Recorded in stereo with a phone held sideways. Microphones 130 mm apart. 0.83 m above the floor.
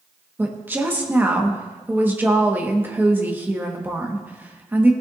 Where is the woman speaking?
15° right (ahead or behind), 1.2 m.